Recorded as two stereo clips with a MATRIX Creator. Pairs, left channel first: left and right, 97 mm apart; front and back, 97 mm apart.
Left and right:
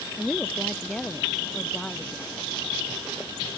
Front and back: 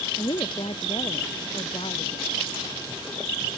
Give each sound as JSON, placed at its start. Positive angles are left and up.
{"t": 0.2, "sound": "a woman speaking", "azimuth_deg": 5}